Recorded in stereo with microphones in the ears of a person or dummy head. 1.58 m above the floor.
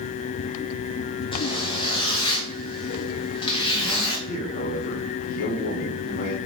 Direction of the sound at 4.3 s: 45° left (ahead or behind).